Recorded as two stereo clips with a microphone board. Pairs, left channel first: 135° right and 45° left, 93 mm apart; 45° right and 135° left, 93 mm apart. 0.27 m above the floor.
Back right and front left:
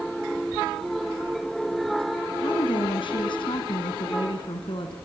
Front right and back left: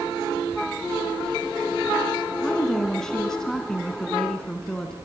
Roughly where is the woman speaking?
Behind right.